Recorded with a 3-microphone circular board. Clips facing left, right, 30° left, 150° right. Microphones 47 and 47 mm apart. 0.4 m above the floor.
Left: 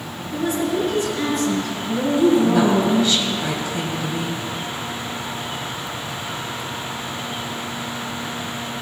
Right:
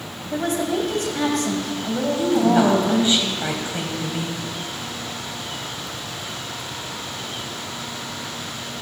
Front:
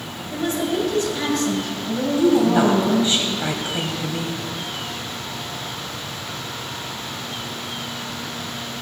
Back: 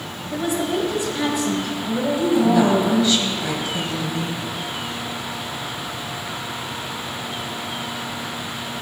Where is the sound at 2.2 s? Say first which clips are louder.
Left 2 dB, front 1 dB; 30° right, 2.5 m.